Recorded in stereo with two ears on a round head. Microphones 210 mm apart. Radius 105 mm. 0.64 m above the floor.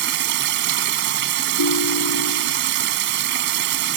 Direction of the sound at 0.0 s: 50° right (ahead or behind).